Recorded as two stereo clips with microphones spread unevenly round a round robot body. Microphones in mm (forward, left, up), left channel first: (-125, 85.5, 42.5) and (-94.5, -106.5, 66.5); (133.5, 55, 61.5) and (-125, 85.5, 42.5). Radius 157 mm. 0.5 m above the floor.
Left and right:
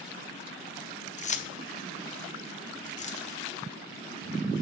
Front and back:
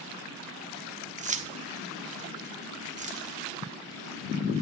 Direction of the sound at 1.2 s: 125° left.